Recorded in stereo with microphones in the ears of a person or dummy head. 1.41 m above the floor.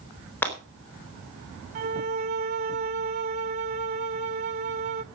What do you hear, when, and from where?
0.4 s breaking glass: 10° left (ahead or behind), 4 m
1.8 s a violin: 40° right (ahead or behind), 0.5 m